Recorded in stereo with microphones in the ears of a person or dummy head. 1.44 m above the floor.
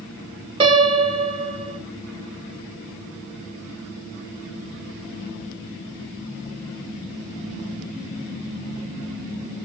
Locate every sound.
0.6 s a piano: 30° right (ahead or behind), 0.8 m